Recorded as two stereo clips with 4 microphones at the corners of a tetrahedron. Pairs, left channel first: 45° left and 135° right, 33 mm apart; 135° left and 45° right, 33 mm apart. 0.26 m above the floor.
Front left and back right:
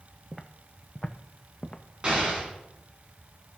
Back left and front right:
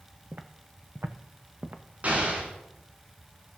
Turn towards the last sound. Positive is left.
turn(degrees=-80)